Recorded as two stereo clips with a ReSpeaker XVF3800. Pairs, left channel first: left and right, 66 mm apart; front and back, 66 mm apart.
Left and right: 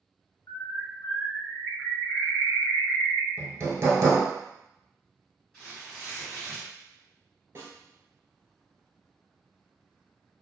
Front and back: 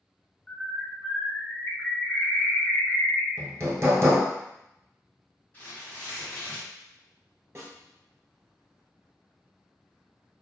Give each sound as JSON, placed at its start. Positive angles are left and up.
{"t": 0.5, "sound": "a bird", "azimuth_deg": 75, "distance_m": 1.2}
{"t": 3.4, "sound": "hammering", "azimuth_deg": -135, "distance_m": 0.8}
{"t": 5.5, "sound": "tearing paper", "azimuth_deg": 20, "distance_m": 1.6}
{"t": 7.5, "sound": "a snare drum", "azimuth_deg": -135, "distance_m": 1.1}